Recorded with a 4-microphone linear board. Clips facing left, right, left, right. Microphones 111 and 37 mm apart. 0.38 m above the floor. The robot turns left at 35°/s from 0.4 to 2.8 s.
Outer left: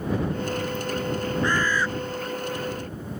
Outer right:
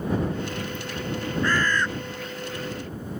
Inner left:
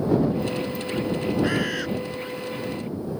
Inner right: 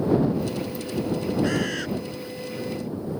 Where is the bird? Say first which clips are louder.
Outer right 1 dB, inner left 1 dB; 20° left (ahead or behind); by 1.9 s 5° left (ahead or behind).